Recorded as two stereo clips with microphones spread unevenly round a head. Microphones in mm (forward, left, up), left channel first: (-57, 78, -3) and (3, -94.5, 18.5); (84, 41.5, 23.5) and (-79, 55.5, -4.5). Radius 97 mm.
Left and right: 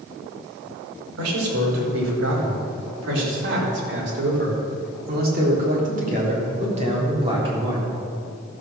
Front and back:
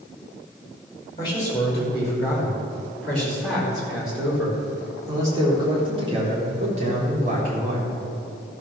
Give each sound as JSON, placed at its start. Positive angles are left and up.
{"t": 1.2, "sound": "a man speaking", "azimuth_deg": -75, "distance_m": 5.0}